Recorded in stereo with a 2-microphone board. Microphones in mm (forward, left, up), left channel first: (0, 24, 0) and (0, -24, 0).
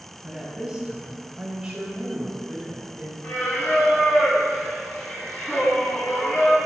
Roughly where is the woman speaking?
Centre.